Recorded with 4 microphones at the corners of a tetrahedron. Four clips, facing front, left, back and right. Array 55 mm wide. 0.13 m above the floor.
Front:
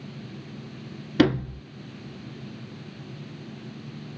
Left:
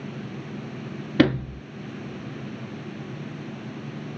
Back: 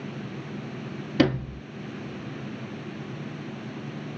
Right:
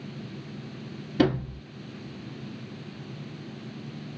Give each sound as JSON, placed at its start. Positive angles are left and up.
{"t": 1.2, "sound": "a sliding door", "azimuth_deg": 80, "distance_m": 1.1}